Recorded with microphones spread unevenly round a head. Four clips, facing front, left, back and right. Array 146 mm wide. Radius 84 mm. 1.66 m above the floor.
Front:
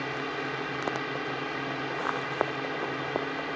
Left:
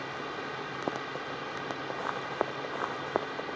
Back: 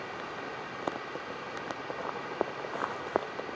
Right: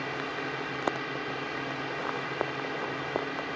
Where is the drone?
20° right.